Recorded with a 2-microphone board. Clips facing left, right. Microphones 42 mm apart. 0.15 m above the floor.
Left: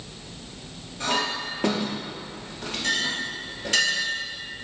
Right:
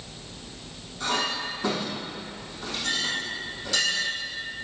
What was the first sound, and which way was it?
A clink, 55° left (ahead or behind).